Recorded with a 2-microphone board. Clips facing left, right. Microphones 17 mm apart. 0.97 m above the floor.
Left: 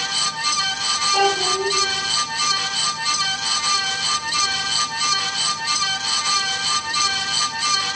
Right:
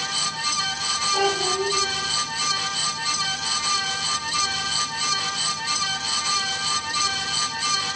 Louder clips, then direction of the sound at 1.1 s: Left 3 dB; 65° left (ahead or behind).